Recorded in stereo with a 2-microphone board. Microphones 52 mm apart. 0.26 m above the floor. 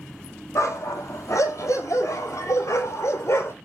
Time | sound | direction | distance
0.6 | a dog barking | 70° left (ahead or behind) | 2 m